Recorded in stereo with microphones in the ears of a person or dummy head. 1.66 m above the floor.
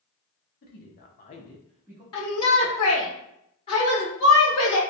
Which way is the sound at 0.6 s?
50° left (ahead or behind).